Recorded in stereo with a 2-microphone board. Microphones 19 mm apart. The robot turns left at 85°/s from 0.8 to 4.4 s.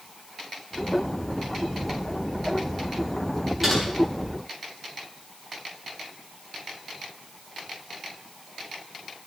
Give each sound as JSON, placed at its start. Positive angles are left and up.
{"t": 3.6, "sound": "typing on a keyboard", "side_deg": -10, "distance_m": 6.5}